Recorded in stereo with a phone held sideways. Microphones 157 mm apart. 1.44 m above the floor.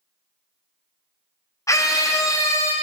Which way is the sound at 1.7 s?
20° left (ahead or behind).